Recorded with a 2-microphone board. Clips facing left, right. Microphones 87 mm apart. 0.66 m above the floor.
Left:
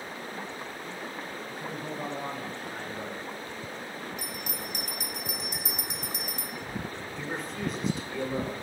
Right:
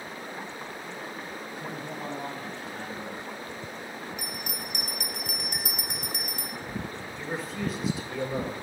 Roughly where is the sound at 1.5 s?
Left.